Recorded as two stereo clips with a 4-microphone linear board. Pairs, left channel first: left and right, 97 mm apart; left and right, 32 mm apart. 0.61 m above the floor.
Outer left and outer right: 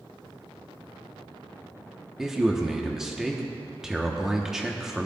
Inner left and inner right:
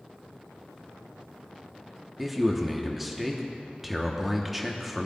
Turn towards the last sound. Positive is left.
turn(degrees=-5)  # may be behind; listen again after turning